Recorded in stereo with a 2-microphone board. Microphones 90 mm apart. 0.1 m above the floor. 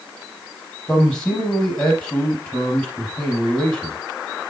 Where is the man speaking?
10° left (ahead or behind), 4 m.